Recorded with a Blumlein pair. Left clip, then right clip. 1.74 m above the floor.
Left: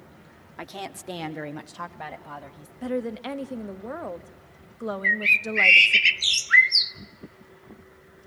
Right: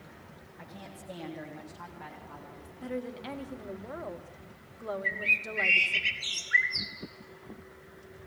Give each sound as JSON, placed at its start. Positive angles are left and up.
{"t": 0.6, "sound": "a woman speaking", "azimuth_deg": 45, "distance_m": 1.1}
{"t": 2.8, "sound": "a woman speaking", "azimuth_deg": 70, "distance_m": 1.0}
{"t": 5.0, "sound": "a bird", "azimuth_deg": 55, "distance_m": 0.9}